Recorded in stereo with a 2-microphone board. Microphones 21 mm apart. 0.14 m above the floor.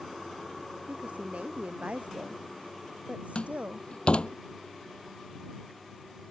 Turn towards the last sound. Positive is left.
turn(degrees=55)  # may be behind; listen again after turning